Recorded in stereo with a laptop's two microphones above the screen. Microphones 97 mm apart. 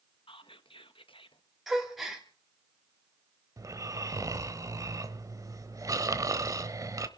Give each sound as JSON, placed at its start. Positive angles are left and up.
{"t": 0.3, "sound": "whispering", "side_deg": 60, "distance_m": 1.2}
{"t": 1.7, "sound": "a gasp", "side_deg": -5, "distance_m": 3.0}
{"t": 3.6, "sound": "snoring", "side_deg": -35, "distance_m": 1.0}